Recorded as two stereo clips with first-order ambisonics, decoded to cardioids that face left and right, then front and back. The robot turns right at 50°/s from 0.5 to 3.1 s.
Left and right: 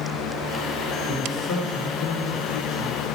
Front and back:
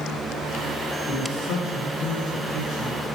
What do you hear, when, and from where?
1.1 s a man speaking: 35° left, 1.8 m; by 3.0 s 130° left, 1.8 m